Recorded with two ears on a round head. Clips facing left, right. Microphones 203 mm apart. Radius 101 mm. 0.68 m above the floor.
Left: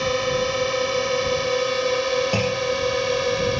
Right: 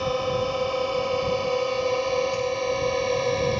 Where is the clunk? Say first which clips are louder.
Left 2 dB; 85° left.